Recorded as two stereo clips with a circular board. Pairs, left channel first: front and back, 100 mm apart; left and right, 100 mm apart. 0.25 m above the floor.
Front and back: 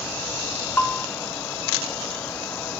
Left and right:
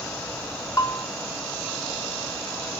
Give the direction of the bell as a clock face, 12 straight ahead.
10 o'clock.